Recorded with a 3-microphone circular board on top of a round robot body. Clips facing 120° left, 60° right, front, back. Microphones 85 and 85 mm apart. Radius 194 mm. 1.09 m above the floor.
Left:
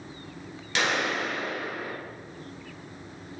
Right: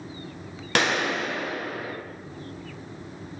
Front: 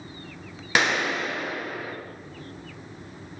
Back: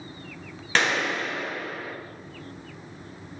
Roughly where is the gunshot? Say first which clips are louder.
Right 3 dB, front 1 dB; right.